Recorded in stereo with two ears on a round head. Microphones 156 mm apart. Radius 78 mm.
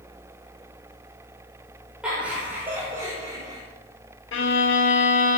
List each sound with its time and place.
2.0 s laughter: 5° right (ahead or behind), 5.5 m; by 3.6 s 25° right (ahead or behind), 4.5 m
4.3 s a violin: 80° left, 2.5 m